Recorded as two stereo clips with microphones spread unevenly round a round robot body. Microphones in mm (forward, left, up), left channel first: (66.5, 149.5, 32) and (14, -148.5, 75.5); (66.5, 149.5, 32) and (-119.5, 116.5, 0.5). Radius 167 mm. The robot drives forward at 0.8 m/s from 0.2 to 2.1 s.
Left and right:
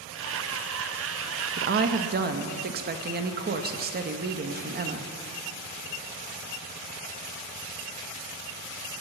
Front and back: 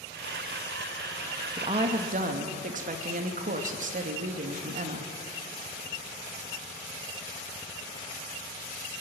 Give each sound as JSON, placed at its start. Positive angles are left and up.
{"t": 1.6, "sound": "a woman speaking", "azimuth_deg": -140, "distance_m": 0.8}